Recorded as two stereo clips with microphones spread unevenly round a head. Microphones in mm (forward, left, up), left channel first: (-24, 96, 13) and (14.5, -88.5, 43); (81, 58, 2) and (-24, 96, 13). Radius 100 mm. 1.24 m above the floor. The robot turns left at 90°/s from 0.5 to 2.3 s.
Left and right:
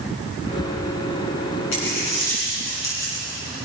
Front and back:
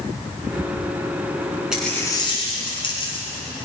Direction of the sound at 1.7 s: 80° left.